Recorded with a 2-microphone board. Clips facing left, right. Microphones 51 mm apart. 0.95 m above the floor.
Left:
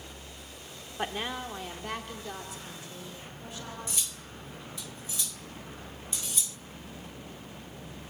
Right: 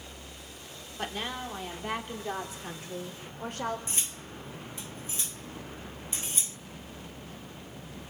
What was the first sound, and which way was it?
A woman speaking, 15° left (ahead or behind).